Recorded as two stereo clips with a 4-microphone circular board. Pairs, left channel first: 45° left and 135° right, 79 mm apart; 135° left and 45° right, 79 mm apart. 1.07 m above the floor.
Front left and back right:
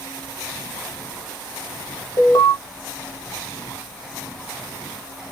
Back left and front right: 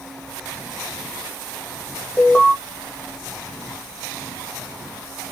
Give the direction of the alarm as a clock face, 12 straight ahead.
10 o'clock.